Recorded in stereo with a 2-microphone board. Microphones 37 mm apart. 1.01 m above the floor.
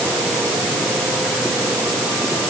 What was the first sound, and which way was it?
Only background noise.